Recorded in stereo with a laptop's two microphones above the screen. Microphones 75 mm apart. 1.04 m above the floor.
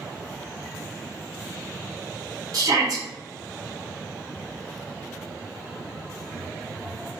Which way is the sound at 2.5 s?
50° right (ahead or behind).